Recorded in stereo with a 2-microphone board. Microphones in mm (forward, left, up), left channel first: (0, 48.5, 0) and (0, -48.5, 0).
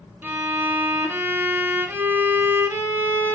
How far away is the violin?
About 2.5 m.